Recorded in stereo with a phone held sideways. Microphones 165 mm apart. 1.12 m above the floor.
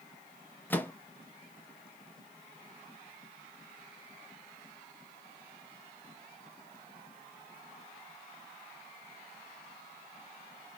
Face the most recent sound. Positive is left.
turn(degrees=10)  # may be behind; listen again after turning